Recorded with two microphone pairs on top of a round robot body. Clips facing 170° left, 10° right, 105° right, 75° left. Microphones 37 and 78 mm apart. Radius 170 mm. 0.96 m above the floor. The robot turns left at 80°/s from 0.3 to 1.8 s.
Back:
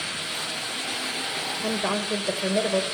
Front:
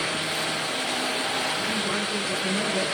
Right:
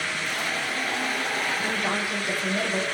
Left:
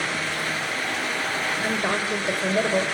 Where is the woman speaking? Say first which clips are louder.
Even, left 2 dB; 155° left, 4 m; by 2.8 s 140° left, 4 m.